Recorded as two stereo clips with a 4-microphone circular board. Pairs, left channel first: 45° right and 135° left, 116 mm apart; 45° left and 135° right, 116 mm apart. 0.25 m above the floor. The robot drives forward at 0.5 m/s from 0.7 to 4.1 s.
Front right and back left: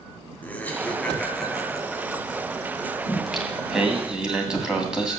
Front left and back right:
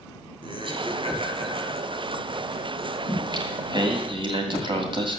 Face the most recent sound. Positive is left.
turn(degrees=-145)